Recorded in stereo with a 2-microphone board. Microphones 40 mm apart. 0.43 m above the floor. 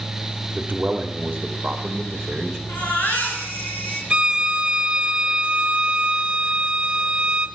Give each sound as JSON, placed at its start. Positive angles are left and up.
{"t": 0.6, "sound": "a man speaking", "side_deg": -40, "distance_m": 1.4}
{"t": 2.7, "sound": "a baby crying", "side_deg": 60, "distance_m": 4.5}
{"t": 4.1, "sound": "a violin", "side_deg": -25, "distance_m": 0.9}